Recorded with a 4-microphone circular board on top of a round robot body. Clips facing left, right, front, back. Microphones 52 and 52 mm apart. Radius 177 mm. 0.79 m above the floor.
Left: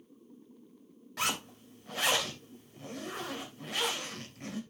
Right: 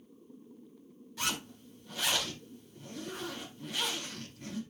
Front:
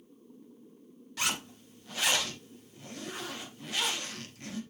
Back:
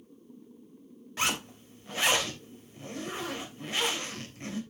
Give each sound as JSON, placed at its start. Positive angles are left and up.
{"t": 1.2, "sound": "a zipper", "azimuth_deg": 115, "distance_m": 3.0}